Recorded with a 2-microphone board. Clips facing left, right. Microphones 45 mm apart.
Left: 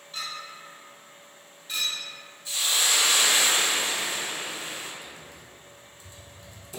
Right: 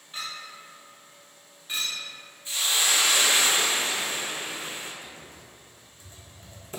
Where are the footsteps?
I don't hear footsteps.